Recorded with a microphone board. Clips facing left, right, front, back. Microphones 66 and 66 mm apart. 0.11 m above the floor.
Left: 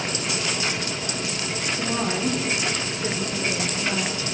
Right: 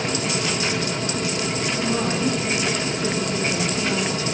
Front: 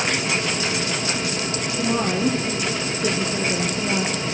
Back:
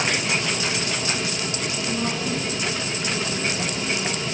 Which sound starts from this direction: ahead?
A woman speaking, at 1.8 s.